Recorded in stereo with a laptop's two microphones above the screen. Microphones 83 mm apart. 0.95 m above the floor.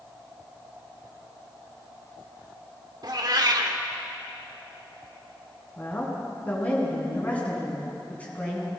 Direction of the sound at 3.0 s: 55° right (ahead or behind).